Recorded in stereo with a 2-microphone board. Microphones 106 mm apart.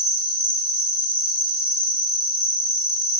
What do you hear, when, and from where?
0.0 s an insect: 65° right (ahead or behind), 1.1 m